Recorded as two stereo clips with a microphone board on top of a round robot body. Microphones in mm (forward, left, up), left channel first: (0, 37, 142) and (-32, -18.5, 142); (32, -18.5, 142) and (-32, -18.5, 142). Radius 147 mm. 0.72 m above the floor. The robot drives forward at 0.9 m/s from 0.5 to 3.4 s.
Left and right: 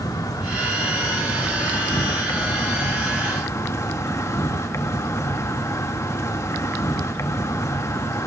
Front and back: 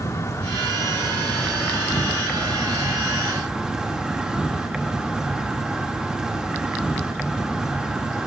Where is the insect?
40° left, 3 m; by 8.3 s 100° left, 2.0 m.